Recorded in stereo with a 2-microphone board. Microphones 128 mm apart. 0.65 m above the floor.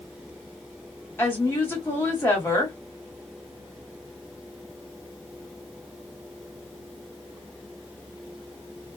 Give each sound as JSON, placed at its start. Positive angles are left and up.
{"t": 1.2, "sound": "a woman speaking", "side_deg": 15, "distance_m": 1.6}